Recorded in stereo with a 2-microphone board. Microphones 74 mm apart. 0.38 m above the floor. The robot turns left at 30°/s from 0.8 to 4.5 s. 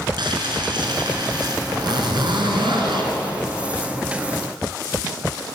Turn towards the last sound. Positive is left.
turn(degrees=-150)